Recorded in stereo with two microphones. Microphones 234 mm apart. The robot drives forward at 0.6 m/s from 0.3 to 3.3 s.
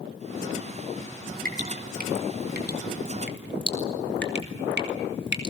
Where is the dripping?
40° right (ahead or behind), 4 m; by 5.5 s 55° right (ahead or behind), 3.5 m.